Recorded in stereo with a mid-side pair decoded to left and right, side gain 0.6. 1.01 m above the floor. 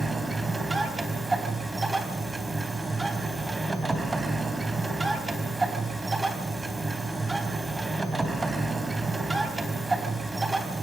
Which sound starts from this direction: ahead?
A machine running, at 0.0 s.